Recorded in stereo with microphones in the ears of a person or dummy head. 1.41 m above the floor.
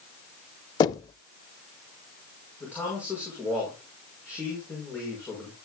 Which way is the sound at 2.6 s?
15° left (ahead or behind).